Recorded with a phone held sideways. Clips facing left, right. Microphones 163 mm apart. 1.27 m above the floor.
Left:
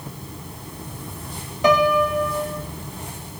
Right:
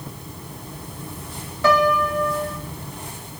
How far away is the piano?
About 1.5 m.